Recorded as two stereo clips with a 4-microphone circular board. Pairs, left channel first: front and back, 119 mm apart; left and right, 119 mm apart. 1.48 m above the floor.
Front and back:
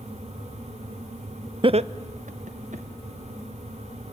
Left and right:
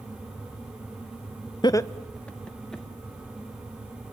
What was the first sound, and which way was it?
Laughter, 140° left.